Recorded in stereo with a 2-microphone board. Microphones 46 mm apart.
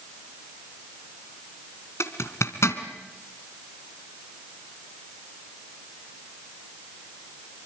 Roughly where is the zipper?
Left.